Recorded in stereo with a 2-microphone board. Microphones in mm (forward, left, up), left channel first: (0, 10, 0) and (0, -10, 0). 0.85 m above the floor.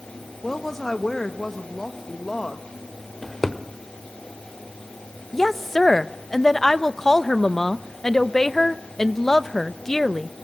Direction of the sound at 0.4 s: 25° left (ahead or behind).